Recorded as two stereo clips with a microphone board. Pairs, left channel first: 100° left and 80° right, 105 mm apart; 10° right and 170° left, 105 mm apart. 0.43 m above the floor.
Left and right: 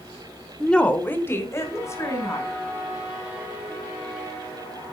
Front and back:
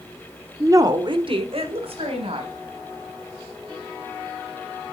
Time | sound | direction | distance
0.6 | a woman speaking | 175° right | 0.8 m